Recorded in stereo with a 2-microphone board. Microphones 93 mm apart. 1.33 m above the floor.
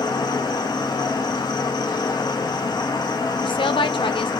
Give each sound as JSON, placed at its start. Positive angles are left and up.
{"t": 0.0, "sound": "an insect", "side_deg": 50, "distance_m": 0.8}
{"t": 3.4, "sound": "a woman speaking", "side_deg": 65, "distance_m": 0.5}